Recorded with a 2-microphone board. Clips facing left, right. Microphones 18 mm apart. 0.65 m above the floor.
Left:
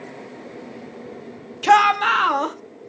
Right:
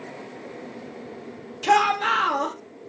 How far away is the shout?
About 0.5 m.